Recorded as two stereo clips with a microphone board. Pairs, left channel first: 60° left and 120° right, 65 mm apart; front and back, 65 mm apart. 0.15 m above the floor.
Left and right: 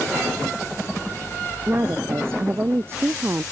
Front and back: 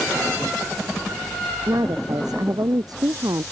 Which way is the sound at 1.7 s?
170° right.